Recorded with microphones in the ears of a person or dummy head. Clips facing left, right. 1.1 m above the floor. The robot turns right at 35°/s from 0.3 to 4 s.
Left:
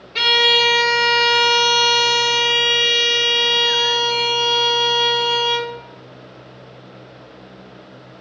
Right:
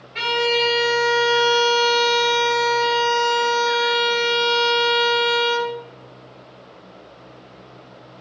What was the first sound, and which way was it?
A violin, 50° left.